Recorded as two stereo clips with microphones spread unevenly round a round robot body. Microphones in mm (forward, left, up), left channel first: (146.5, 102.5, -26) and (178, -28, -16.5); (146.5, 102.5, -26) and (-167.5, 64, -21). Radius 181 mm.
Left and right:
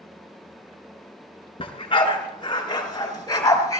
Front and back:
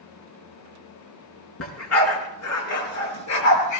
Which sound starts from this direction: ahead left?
A dog barking, at 1.6 s.